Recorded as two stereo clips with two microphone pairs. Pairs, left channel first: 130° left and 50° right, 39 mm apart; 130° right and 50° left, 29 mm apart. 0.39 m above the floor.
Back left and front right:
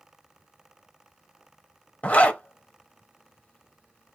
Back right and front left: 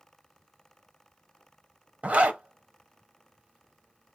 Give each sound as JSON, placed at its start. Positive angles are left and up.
{"t": 2.0, "sound": "a zipper", "azimuth_deg": 80, "distance_m": 0.5}